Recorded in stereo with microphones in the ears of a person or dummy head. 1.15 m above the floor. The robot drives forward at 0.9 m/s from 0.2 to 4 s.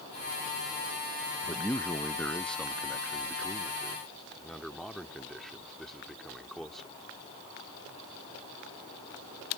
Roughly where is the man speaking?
Centre.